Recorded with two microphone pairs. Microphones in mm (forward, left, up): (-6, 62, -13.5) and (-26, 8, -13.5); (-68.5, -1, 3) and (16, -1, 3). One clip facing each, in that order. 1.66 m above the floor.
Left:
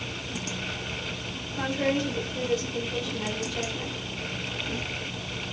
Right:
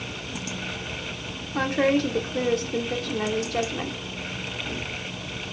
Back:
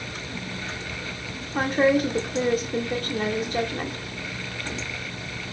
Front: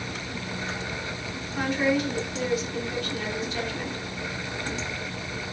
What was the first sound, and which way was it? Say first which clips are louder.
A woman speaking: right 5 dB, back 4 dB; 145° right.